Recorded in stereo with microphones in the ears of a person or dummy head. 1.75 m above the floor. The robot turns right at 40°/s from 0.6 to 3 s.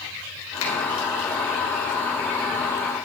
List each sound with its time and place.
0.6 s a finger snap: 70° left (ahead or behind), 2 m; by 0.7 s 65° left (ahead or behind), 2 m